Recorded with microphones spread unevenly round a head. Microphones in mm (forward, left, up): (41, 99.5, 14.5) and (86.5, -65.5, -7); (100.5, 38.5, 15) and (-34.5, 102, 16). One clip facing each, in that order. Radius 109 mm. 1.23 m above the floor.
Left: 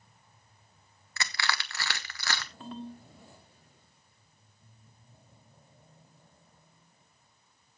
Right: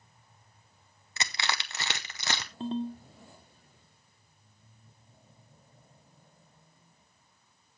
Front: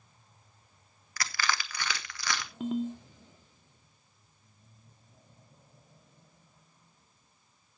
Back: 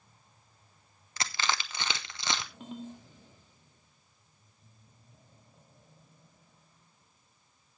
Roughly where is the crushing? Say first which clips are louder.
Even, even; behind right.